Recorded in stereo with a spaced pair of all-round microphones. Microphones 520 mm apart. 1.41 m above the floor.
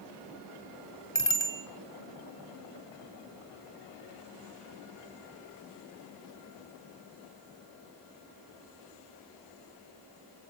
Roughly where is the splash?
I don't hear a splash.